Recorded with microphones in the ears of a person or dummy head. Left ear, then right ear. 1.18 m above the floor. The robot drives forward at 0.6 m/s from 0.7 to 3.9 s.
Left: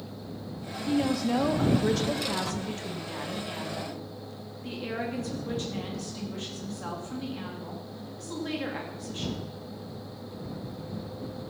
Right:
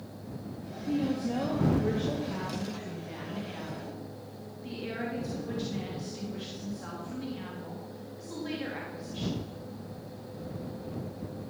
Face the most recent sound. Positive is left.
turn(degrees=25)  # may be behind; listen again after turning